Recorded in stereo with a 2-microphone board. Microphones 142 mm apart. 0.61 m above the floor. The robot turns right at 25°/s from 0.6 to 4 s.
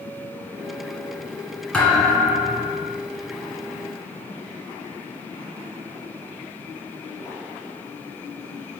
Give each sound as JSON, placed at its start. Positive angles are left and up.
{"t": 1.7, "sound": "a thud", "azimuth_deg": 170, "distance_m": 1.6}